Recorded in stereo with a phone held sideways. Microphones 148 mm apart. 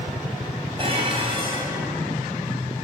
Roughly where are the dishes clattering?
Right.